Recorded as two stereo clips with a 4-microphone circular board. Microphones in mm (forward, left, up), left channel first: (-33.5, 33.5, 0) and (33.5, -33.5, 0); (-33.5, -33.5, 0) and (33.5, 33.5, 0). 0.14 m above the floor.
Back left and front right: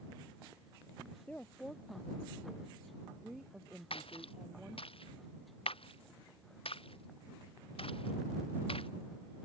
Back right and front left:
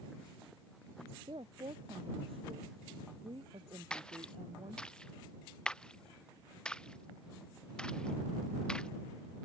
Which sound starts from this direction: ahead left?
A woman speaking, at 1.3 s.